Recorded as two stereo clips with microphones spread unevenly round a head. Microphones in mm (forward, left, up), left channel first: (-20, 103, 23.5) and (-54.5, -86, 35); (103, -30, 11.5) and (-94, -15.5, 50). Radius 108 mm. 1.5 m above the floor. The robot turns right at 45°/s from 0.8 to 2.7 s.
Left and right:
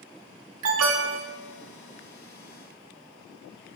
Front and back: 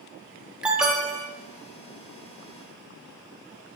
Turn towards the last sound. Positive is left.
turn(degrees=-15)